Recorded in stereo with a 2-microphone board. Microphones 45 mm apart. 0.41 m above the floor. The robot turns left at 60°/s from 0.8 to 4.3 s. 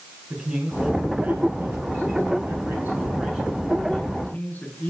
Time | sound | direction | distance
0.3 | a man speaking | 10° right | 6 m